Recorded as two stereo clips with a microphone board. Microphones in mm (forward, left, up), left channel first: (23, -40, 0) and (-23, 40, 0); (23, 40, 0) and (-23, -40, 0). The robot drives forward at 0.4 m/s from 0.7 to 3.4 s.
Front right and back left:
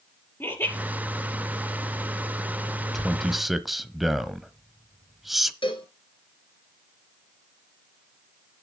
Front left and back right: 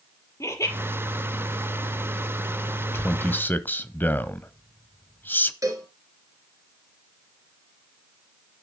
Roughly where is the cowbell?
Right.